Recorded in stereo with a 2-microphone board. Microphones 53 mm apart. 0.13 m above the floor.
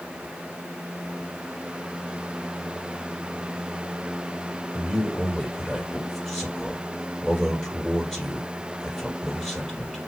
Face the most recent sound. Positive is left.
turn(degrees=5)  # may be behind; listen again after turning